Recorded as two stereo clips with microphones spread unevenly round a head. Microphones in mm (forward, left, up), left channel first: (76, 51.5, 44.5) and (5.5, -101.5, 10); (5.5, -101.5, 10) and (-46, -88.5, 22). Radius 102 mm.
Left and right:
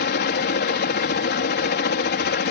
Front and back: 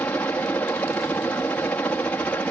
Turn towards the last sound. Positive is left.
turn(degrees=50)